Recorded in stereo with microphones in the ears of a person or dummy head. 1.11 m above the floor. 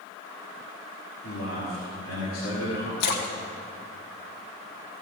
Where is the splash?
60° left (ahead or behind), 0.9 m.